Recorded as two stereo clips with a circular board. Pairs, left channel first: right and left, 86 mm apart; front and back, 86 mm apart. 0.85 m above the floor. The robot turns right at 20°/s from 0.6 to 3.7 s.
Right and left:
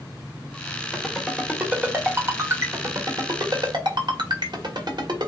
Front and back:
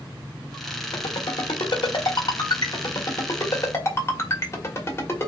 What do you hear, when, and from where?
0.9 s a ringtone: 5° left, 1.4 m; by 5.3 s 60° left, 1.4 m